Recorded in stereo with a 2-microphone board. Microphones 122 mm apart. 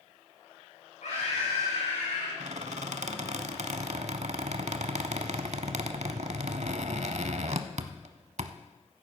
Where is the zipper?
No zipper in this recording.